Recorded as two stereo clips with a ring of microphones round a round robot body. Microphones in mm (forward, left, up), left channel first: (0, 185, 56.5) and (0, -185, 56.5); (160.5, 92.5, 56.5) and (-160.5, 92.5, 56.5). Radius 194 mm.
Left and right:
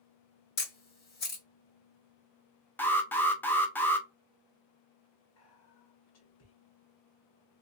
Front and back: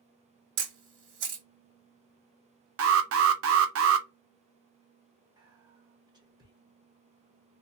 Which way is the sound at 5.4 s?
110° left.